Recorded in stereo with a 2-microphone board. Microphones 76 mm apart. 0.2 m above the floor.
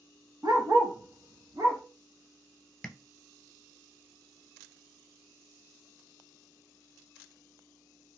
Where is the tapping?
10° left (ahead or behind), 0.5 m.